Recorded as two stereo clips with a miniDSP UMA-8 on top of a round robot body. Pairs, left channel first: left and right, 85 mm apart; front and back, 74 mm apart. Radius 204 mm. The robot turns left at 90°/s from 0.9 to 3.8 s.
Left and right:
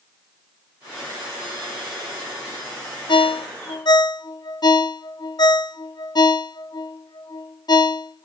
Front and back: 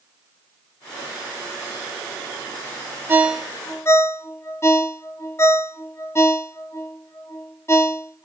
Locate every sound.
3.1 s a ringtone: 120° left, 0.8 m; by 8.3 s 55° left, 0.8 m